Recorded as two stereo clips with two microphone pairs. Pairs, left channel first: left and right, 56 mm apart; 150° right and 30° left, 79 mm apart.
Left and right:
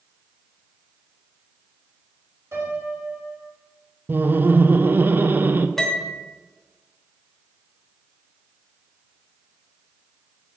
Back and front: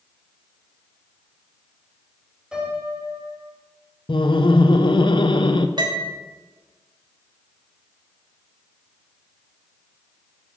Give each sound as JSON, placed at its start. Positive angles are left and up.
{"t": 2.5, "sound": "a piano", "azimuth_deg": -50, "distance_m": 3.0}
{"t": 4.1, "sound": "laughter", "azimuth_deg": -140, "distance_m": 0.6}
{"t": 5.8, "sound": "a piano", "azimuth_deg": 10, "distance_m": 1.2}